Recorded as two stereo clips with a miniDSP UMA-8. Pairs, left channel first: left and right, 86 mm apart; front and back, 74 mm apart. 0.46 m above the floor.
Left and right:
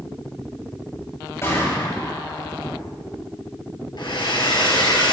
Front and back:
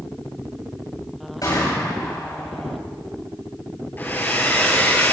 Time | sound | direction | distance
1.4 | a gunshot | 30° left | 7 m
4.0 | a hair dryer | 60° left | 2.5 m